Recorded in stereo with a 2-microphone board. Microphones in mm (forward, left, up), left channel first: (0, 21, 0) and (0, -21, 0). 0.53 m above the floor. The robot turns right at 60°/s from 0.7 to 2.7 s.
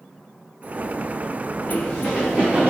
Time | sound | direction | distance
1.7 | running footsteps | 30° left (ahead or behind) | 4.5 m